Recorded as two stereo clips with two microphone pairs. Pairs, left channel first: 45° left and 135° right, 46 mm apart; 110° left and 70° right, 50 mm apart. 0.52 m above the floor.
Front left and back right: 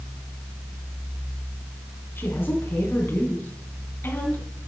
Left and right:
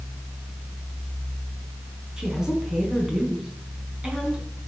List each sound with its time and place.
2.2 s a woman speaking: 5° left, 4.5 m